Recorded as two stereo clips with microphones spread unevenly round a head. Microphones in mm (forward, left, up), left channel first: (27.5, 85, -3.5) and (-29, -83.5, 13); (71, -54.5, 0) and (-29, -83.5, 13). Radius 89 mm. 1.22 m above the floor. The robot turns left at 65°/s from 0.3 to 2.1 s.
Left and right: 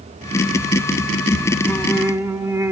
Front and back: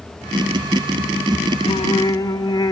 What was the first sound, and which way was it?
Singing, 10° right.